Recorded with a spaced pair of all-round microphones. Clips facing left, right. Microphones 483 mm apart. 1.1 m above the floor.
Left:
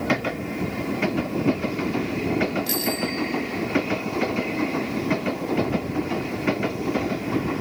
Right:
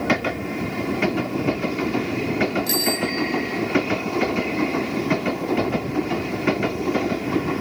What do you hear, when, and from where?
2.7 s a bicycle bell: 25° left (ahead or behind), 2.5 m